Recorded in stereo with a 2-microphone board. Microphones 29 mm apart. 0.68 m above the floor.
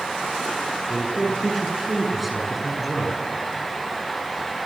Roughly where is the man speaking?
Centre.